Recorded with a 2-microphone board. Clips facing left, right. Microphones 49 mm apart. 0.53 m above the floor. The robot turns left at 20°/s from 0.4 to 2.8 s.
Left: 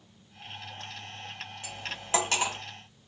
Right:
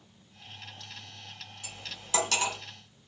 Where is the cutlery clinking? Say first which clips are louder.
Left 5 dB; 40° left (ahead or behind), 1.2 m; by 2.6 s 20° left (ahead or behind), 1.2 m.